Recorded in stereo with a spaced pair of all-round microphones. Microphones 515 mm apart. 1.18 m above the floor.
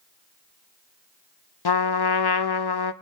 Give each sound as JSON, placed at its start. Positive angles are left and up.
{"t": 1.6, "sound": "a trumpet", "side_deg": 45, "distance_m": 0.6}